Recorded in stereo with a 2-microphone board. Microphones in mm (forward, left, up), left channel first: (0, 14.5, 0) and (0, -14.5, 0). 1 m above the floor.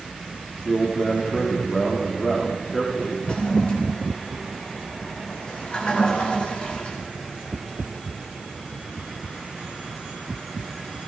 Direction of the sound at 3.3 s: 30° left (ahead or behind).